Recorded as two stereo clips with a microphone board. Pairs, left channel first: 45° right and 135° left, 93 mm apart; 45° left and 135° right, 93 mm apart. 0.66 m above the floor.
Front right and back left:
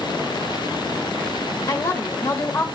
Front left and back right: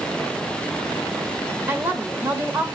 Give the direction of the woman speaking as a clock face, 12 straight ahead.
3 o'clock.